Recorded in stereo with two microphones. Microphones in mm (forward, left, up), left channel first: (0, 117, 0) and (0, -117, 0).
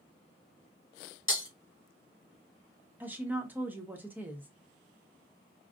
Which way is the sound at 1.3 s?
60° left (ahead or behind).